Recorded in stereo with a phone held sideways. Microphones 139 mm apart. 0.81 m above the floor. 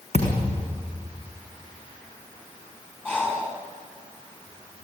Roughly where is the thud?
Left.